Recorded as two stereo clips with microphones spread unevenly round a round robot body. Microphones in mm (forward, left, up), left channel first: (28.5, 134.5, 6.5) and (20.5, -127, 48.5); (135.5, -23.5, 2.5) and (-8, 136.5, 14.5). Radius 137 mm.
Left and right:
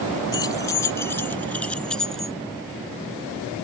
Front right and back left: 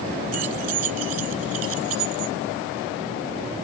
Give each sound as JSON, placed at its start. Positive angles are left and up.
{"t": 0.3, "sound": "keys jangling", "azimuth_deg": 165}